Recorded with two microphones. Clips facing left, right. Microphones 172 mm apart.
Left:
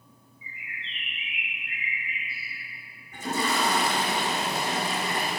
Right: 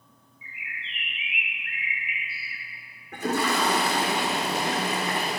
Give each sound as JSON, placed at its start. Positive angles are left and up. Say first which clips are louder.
{"t": 0.4, "sound": "a bird", "louder": "right 1 dB", "side_deg": -80, "distance_m": 1.4}
{"t": 3.1, "sound": "a toilet flushing", "louder": "right 3 dB", "side_deg": -65, "distance_m": 3.0}